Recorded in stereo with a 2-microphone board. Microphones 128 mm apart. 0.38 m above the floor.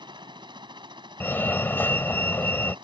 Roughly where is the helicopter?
Right.